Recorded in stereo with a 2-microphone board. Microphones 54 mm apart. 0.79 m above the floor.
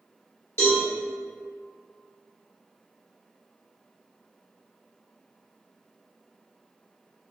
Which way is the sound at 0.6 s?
55° left (ahead or behind).